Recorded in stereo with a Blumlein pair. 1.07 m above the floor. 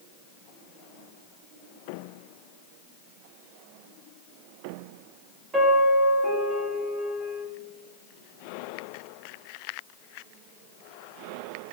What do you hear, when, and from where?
5.5 s a piano: 20° right, 1.6 m